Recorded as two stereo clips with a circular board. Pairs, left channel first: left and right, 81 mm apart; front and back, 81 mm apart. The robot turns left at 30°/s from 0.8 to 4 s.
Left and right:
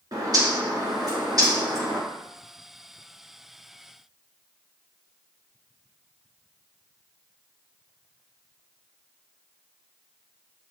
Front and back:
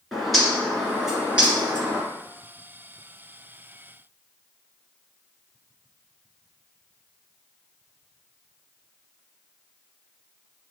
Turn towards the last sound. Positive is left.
turn(degrees=175)